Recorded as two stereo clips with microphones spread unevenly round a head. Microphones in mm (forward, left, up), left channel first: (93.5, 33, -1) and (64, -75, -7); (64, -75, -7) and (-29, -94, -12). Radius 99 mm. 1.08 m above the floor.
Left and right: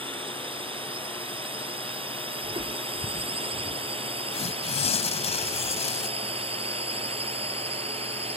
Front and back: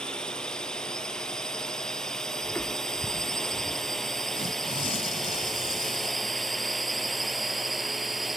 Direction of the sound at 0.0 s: 70° right.